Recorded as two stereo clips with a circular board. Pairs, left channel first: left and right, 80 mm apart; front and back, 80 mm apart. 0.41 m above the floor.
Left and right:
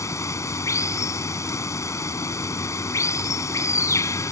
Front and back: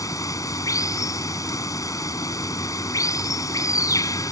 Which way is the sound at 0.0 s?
40° left.